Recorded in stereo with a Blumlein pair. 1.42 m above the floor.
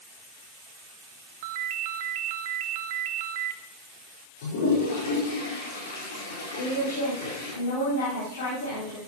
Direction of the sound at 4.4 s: 55° left.